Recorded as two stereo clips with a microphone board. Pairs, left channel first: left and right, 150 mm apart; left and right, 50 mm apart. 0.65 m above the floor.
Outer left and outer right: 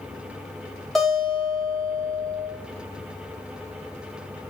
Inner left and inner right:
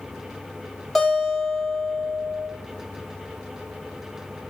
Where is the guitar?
5° left (ahead or behind), 0.8 m.